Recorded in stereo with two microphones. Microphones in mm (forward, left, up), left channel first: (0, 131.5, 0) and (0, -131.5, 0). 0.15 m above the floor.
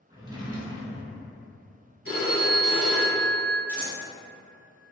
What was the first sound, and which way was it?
A drawer, 15° right (ahead or behind).